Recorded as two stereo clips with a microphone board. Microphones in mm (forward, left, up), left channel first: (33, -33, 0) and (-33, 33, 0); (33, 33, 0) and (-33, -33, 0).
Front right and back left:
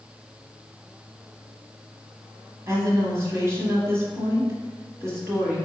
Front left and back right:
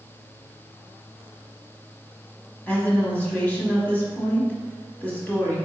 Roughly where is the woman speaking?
Left.